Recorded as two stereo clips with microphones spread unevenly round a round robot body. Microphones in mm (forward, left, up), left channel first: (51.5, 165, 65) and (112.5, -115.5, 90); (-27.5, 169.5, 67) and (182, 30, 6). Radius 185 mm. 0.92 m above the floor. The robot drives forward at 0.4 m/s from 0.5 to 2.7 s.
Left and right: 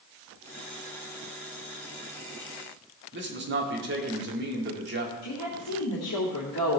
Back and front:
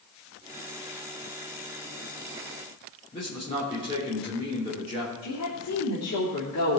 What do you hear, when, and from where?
3.1 s a man speaking: 135° right, 2.5 m
5.2 s a woman speaking: 135° left, 3 m